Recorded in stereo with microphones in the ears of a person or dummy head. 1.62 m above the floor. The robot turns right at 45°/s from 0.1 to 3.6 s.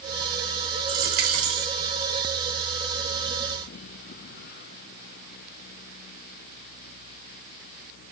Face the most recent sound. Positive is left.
turn(degrees=50)